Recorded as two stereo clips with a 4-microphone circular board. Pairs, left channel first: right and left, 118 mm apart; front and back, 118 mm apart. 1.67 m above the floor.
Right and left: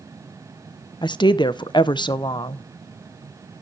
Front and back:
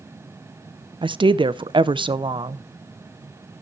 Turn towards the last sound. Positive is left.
turn(degrees=-135)